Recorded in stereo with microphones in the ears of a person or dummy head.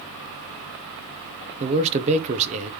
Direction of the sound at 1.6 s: 45° right (ahead or behind).